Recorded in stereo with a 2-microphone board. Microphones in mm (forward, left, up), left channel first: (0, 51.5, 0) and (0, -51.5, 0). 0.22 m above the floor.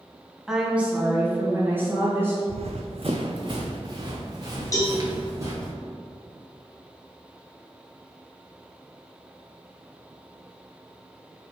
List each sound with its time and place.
0.5 s a woman speaking: 5° right (ahead or behind), 1.3 m; by 2.4 s 20° right (ahead or behind), 4 m
2.5 s running footsteps: 75° right (ahead or behind), 0.7 m; by 5.7 s 30° right (ahead or behind), 2.5 m
4.7 s a cowbell: 30° left (ahead or behind), 2 m